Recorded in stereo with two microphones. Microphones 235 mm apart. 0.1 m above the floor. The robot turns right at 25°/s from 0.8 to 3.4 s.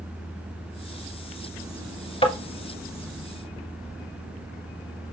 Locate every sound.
2.2 s tapping: 25° left (ahead or behind), 1.6 m